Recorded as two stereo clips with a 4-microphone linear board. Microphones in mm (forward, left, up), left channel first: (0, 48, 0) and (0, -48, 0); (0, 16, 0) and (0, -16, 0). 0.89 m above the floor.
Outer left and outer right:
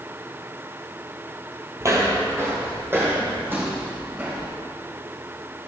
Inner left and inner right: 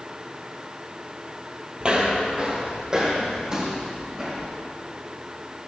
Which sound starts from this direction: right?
Footsteps, at 1.8 s.